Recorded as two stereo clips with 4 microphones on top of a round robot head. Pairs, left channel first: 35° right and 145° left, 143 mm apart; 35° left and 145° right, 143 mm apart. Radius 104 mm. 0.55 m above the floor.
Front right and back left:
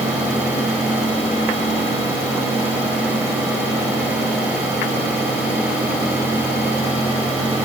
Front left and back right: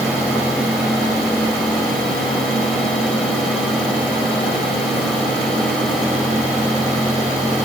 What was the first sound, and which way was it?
Only background noise.